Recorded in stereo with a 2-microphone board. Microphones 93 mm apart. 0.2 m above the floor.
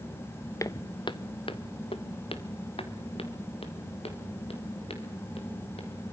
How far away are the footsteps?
About 0.6 m.